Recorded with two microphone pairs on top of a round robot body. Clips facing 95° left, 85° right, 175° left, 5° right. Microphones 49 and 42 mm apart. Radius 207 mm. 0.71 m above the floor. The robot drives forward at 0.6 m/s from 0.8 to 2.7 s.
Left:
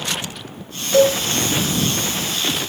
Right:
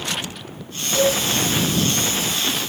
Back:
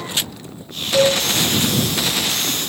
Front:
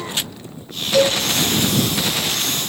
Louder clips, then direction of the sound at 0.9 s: Left 5 dB, back 1 dB; 95° left.